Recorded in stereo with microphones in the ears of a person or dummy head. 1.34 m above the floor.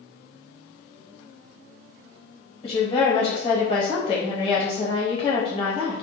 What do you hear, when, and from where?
2.6 s a woman speaking: 30° left (ahead or behind), 0.9 m